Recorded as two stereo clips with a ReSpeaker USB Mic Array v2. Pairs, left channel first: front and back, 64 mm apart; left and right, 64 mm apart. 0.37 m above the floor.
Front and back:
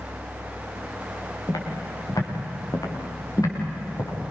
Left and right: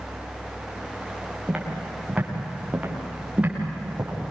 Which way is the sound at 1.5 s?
10° right.